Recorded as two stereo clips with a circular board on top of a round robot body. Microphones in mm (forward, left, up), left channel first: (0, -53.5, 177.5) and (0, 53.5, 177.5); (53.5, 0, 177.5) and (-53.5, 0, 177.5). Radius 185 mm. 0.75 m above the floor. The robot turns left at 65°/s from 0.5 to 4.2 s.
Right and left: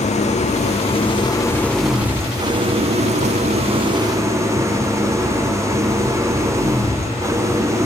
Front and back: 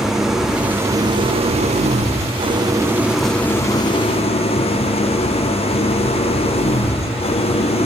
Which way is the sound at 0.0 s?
95° right.